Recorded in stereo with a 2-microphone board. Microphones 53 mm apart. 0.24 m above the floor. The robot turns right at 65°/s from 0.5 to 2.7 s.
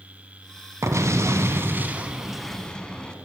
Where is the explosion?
105° right, 0.5 m; by 3.1 s 20° left, 0.5 m.